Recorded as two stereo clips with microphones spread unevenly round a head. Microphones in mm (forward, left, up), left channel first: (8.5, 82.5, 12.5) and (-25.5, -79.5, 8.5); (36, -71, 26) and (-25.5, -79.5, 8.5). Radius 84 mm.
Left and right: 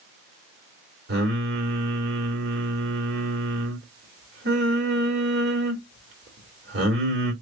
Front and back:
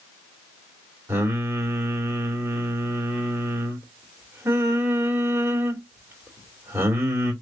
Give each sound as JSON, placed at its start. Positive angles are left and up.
{"t": 1.1, "sound": "singing", "azimuth_deg": -120, "distance_m": 2.0}